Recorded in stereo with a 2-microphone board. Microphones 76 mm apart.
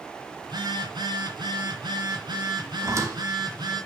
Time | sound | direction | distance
0.4 | a phone buzzing | 80° right | 3.5 m
2.8 | a squeak | 45° right (ahead or behind) | 1.9 m